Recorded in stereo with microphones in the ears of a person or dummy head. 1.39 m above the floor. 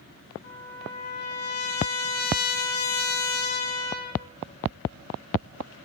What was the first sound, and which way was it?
A trumpet, 50° left (ahead or behind).